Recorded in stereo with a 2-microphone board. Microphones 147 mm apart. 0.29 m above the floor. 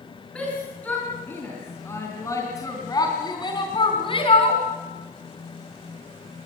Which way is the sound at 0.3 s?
5° left (ahead or behind).